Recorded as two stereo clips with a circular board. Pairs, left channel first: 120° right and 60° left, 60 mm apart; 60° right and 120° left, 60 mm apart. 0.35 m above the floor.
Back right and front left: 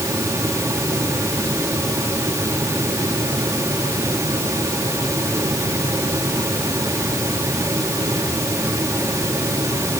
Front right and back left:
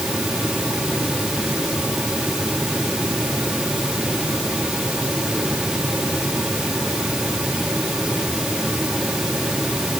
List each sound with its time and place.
Only background noise.